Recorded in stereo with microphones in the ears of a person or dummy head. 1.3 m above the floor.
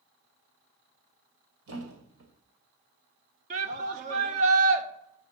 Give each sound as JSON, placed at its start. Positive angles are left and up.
{"t": 1.7, "sound": "a thud", "side_deg": -70, "distance_m": 2.5}
{"t": 3.5, "sound": "a shout", "side_deg": -45, "distance_m": 1.4}